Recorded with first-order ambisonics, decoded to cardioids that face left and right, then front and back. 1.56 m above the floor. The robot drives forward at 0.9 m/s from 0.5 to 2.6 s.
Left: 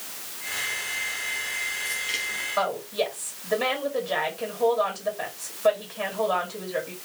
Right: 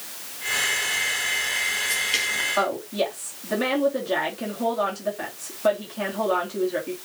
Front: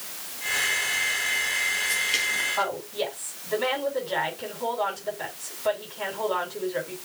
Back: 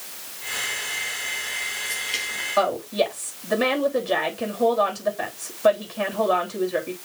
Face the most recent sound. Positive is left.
turn(degrees=-160)